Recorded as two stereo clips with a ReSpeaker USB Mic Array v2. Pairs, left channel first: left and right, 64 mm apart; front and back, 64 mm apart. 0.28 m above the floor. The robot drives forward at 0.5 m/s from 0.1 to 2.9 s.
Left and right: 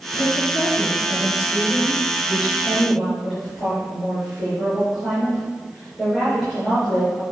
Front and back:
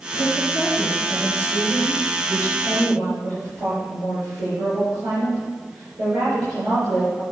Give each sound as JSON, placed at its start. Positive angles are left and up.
{"t": 0.1, "sound": "a woman speaking", "azimuth_deg": 180, "distance_m": 3.0}